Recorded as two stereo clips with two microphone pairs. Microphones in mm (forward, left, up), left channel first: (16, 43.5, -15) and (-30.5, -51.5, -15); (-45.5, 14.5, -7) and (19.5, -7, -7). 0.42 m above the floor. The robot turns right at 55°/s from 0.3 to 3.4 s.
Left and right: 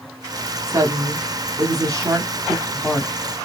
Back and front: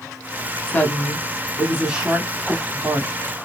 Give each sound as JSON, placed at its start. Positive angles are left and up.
{"t": 0.7, "sound": "a woman speaking", "azimuth_deg": -155, "distance_m": 1.1}